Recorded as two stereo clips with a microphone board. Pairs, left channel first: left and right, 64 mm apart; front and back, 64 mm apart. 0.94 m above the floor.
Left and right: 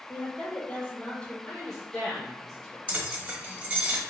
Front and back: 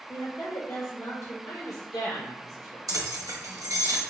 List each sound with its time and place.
0.1 s a woman speaking: 25° left, 1.5 m
1.5 s a woman speaking: 10° left, 0.8 m
2.9 s keys jangling: 155° right, 1.0 m